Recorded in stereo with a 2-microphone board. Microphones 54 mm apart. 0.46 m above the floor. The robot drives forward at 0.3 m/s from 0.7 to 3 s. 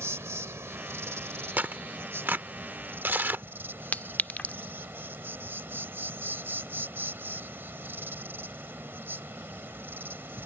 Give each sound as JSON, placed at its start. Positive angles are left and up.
{"t": 0.0, "sound": "an insect", "side_deg": -65}
{"t": 1.6, "sound": "tearing paper", "side_deg": -40}
{"t": 3.9, "sound": "a clink", "side_deg": 35}